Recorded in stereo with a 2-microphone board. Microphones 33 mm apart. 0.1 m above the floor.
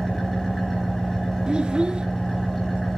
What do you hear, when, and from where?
0.0 s an engine running: centre (ahead or behind), 3.5 m
1.5 s a child speaking: 30° right (ahead or behind), 0.7 m